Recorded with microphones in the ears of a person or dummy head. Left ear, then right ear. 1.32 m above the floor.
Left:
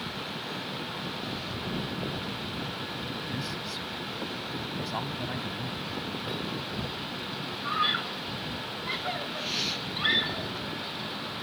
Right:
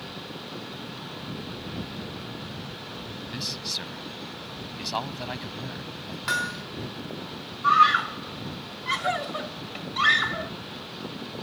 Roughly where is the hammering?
Right.